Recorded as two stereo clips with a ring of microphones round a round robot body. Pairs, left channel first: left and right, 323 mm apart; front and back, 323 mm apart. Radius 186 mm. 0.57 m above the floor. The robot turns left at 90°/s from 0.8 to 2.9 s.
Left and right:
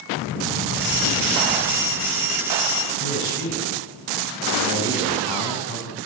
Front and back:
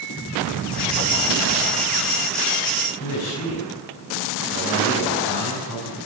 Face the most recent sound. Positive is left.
turn(degrees=50)